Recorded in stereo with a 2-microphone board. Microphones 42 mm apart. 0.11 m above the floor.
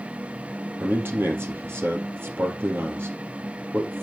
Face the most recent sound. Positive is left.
turn(degrees=-55)  # may be behind; listen again after turning